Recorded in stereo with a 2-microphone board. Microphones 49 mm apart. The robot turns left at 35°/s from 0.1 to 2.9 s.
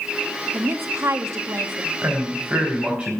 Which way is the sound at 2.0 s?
130° right.